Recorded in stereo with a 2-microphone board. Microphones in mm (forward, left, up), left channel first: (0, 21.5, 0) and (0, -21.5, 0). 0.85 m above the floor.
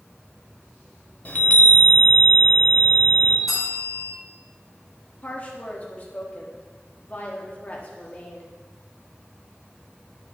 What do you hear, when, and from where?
1.2 s a chime: 35° left (ahead or behind), 0.9 m
3.5 s a bell: 5° right (ahead or behind), 4 m
5.2 s a woman speaking: 35° left (ahead or behind), 1.5 m